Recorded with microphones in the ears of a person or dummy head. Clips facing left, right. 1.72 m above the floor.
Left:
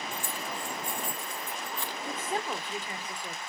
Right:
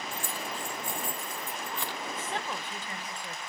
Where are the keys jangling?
45° right (ahead or behind), 0.9 m.